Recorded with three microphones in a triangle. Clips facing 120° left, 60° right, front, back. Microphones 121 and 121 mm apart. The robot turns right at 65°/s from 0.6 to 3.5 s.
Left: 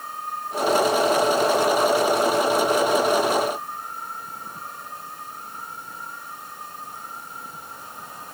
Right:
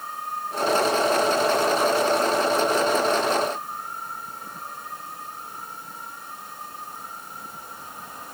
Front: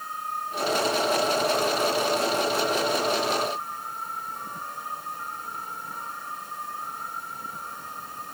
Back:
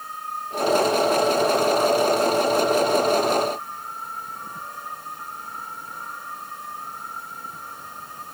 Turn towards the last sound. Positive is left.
No sound to turn to.